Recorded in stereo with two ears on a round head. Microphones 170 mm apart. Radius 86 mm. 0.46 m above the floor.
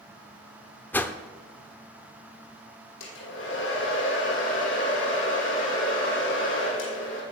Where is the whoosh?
10° left (ahead or behind), 0.8 m.